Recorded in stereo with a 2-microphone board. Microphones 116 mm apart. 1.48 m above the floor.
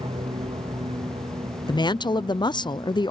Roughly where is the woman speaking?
Left.